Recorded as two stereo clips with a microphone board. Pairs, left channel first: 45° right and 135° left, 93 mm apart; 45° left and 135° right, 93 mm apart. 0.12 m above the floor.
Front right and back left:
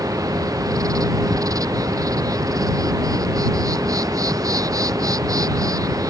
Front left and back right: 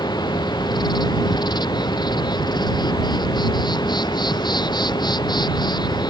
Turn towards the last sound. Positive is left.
turn(degrees=85)